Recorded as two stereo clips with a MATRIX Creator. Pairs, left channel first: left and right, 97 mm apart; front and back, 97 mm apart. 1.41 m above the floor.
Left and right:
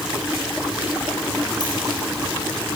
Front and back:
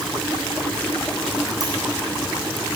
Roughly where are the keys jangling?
Behind left.